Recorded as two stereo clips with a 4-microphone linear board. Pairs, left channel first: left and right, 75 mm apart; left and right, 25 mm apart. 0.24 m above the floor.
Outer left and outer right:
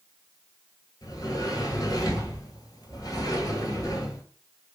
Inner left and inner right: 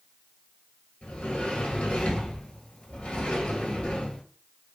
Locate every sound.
1.0 s a sliding door: 60° left (ahead or behind), 1.0 m